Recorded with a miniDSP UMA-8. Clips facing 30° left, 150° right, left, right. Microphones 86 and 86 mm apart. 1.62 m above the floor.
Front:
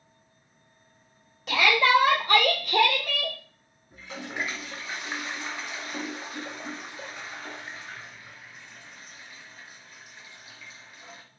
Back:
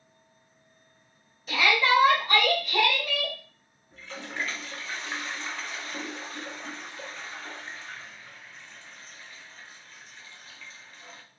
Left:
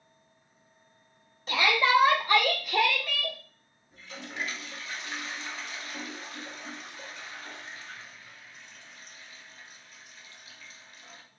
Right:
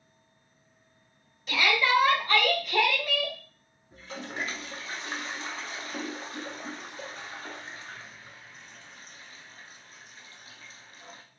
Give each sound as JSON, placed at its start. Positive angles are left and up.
{"t": 1.5, "sound": "a shout", "azimuth_deg": 40, "distance_m": 1.5}
{"t": 3.9, "sound": "a toilet flushing", "azimuth_deg": -45, "distance_m": 0.5}